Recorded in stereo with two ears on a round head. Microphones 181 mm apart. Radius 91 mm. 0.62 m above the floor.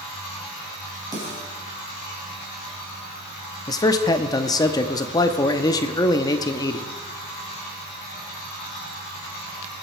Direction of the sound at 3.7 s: 20° left (ahead or behind).